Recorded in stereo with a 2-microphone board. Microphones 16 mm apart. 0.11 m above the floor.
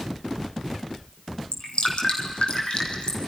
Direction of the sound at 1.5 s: 65° left (ahead or behind).